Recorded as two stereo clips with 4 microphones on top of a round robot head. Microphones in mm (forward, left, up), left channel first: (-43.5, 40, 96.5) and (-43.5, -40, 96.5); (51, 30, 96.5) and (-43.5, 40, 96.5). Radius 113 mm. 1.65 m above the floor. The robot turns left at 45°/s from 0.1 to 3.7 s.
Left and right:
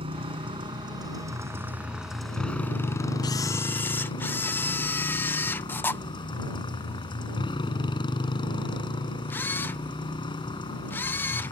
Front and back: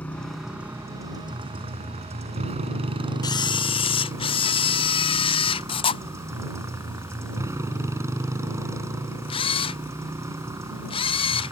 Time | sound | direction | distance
0.0 | a motorcycle | 85° right | ?
3.2 | a camera shutter | 40° left | ?